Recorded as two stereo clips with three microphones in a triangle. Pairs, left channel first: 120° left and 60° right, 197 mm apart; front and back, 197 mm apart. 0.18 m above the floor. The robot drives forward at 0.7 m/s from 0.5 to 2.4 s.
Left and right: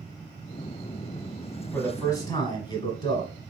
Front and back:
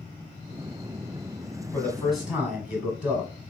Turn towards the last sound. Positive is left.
turn(degrees=115)